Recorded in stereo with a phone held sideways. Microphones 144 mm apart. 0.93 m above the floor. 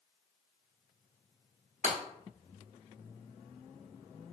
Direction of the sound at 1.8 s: 60° right (ahead or behind).